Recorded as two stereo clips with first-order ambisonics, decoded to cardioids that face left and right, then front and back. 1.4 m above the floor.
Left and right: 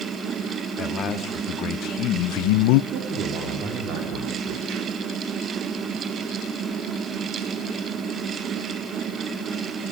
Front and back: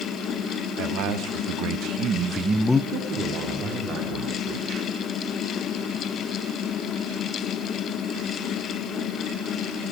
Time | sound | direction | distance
0.8 | a man speaking | 150° left | 3 m
2.9 | a man speaking | 130° right | 3.5 m